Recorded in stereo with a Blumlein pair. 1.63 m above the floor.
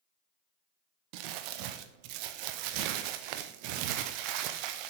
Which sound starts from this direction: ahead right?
Crumpling, at 1.1 s.